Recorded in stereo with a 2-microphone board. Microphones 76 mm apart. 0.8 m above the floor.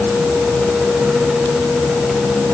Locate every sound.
Only background noise.